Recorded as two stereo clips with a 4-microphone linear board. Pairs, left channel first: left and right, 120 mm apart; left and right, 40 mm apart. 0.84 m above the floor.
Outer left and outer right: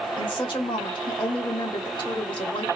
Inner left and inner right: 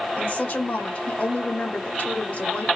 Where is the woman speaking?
45° left (ahead or behind), 1.4 m.